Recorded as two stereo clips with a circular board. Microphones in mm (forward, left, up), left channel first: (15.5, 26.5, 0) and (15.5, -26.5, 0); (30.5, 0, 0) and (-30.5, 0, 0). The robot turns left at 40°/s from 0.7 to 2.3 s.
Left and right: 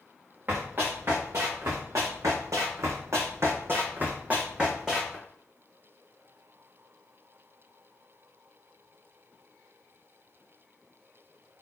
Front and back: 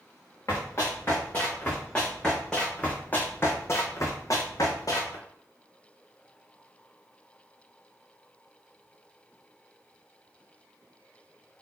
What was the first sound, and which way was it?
Running footsteps, 40° right.